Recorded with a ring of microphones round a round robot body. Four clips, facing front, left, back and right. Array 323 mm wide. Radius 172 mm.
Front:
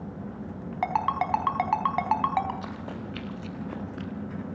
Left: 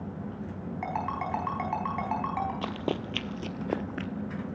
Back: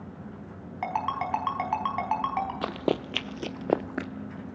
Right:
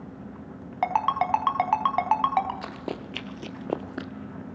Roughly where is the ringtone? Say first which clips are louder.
Right 9 dB, front 3 dB; ahead right.